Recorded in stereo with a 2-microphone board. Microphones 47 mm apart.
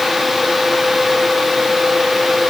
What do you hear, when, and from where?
Only background noise.